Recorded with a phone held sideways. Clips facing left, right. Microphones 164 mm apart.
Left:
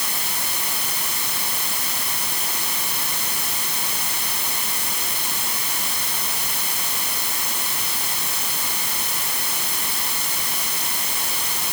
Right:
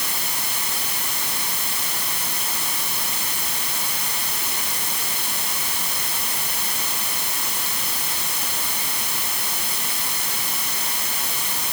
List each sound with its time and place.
Only background noise.